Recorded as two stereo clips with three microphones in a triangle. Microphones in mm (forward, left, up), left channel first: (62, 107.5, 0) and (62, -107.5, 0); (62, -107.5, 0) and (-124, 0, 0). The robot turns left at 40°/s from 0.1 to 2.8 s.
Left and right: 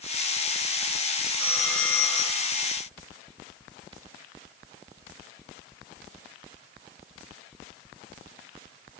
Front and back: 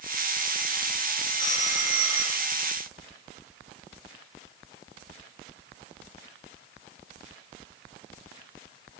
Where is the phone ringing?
170° right, 2.5 m; by 2.6 s 145° left, 2.5 m.